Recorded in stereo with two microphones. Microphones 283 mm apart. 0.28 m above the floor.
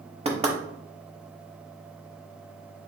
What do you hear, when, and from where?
0.2 s knocking: 20° right (ahead or behind), 0.8 m